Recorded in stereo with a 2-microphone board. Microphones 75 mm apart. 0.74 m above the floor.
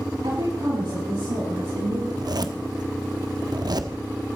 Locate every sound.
0.2 s a woman speaking: 75° right (ahead or behind), 5.5 m; by 2.0 s 70° right (ahead or behind), 6.5 m
2.1 s a zipper: 60° right (ahead or behind), 1.0 m